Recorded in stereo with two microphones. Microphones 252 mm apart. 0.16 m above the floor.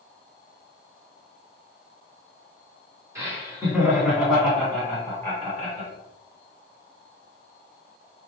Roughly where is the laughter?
Centre.